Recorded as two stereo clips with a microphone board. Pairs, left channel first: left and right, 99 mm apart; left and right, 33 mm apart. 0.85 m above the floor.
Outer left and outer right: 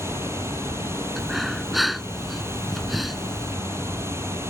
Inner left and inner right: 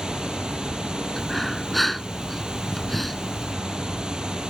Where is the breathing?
Centre (ahead or behind).